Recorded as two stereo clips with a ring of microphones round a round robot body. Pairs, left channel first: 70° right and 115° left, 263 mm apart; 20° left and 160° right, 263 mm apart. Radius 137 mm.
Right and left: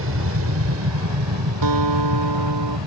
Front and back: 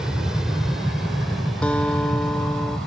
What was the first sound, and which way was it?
An aircraft, 115° left.